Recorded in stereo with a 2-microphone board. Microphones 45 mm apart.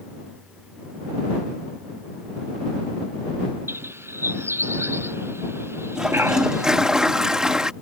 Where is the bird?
65° right (ahead or behind).